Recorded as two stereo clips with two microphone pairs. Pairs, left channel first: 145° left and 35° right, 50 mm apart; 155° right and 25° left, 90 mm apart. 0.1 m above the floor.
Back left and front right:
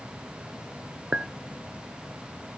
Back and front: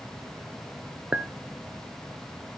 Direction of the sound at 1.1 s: 20° right.